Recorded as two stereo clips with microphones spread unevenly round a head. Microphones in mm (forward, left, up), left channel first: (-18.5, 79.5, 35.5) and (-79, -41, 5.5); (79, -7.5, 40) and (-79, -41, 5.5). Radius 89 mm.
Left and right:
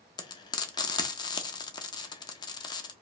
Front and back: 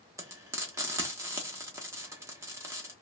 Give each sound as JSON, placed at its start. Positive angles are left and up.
{"t": 0.2, "sound": "frying", "azimuth_deg": 110, "distance_m": 0.6}